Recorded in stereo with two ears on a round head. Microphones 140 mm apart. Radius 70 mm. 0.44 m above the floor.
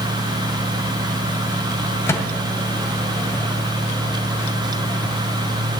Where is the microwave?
15° left (ahead or behind), 1.9 m.